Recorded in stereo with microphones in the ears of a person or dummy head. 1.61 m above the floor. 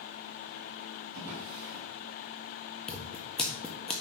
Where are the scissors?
5° left (ahead or behind), 1.4 m.